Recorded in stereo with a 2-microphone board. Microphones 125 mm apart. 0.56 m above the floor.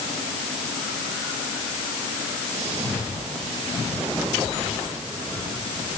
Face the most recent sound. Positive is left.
No sound to turn to.